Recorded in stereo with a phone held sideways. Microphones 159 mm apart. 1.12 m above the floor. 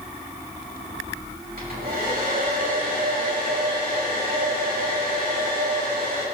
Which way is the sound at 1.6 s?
75° right (ahead or behind).